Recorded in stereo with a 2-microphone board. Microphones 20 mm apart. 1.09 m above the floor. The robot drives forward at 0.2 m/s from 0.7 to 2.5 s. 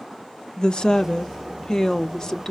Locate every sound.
0.6 s a woman speaking: 45° left (ahead or behind), 0.7 m; by 2.5 s 30° left (ahead or behind), 1.0 m